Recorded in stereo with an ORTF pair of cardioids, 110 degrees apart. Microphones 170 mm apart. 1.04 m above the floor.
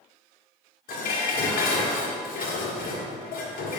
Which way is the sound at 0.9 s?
60° left.